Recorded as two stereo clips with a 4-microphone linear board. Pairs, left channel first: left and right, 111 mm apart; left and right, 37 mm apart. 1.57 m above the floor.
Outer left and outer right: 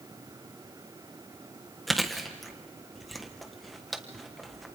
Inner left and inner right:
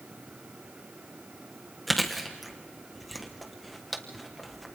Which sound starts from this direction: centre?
Chewing, at 1.9 s.